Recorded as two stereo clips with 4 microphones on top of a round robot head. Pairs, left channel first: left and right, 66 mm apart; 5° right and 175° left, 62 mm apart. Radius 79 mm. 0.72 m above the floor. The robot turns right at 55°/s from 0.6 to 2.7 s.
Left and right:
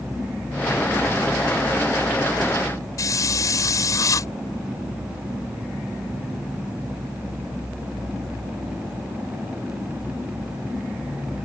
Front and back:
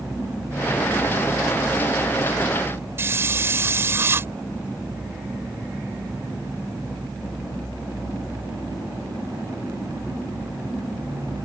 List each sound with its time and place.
3.0 s a hiss: 125° left